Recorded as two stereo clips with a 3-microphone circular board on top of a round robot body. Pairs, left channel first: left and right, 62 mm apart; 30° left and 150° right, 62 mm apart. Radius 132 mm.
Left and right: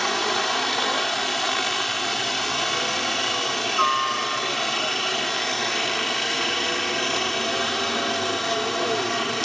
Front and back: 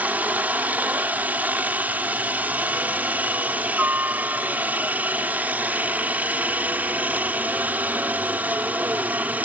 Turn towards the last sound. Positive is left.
turn(degrees=175)